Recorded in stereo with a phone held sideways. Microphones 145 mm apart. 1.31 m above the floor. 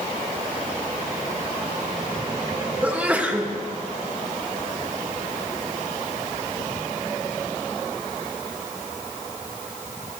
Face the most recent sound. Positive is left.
turn(degrees=-10)  # may be behind; listen again after turning